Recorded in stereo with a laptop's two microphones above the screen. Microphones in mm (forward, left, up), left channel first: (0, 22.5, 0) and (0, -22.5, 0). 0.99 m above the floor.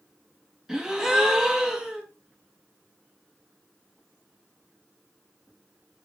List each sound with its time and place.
0.7 s a gasp: 15° right (ahead or behind), 1.3 m